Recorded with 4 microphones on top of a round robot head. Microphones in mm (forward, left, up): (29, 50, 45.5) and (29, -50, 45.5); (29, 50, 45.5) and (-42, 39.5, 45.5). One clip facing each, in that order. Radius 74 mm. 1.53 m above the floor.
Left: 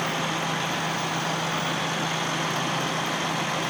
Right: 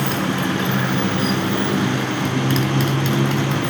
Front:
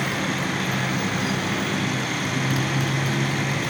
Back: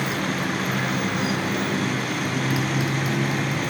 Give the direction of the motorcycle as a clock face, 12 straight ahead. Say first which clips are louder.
Right 6 dB, even; 3 o'clock.